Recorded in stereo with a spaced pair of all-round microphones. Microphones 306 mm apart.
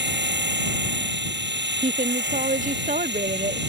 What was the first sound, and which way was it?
A machine running, 35° right (ahead or behind).